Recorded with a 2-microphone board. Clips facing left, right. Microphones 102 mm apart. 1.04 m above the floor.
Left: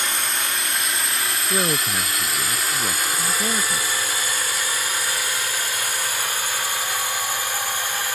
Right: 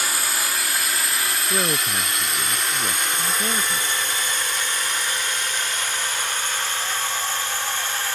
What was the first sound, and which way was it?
A drone, 5° right (ahead or behind).